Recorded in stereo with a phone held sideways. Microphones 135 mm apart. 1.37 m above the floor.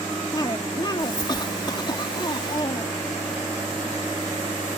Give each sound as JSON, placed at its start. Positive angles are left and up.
{"t": 0.3, "sound": "a cough", "side_deg": 35}